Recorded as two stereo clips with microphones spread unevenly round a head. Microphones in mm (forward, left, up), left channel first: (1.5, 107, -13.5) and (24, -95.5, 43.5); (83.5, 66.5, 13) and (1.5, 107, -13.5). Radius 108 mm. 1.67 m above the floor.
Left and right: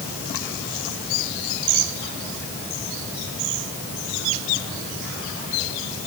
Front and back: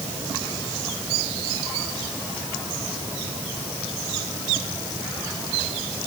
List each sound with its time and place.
Only background noise.